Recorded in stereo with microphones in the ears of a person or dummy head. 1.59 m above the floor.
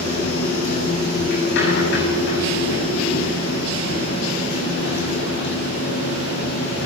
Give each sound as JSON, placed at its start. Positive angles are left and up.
{"t": 0.0, "sound": "a machine running", "side_deg": 65, "distance_m": 7.5}